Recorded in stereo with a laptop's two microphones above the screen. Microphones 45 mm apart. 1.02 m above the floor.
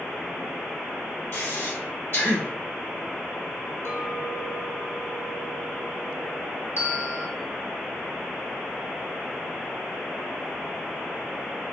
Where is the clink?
80° left, 1.7 m.